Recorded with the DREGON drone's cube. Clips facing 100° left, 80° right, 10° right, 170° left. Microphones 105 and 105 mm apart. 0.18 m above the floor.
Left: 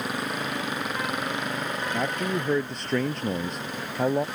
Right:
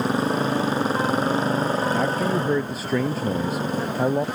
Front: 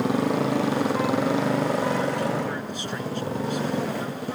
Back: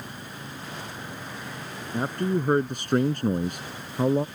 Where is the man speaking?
165° right.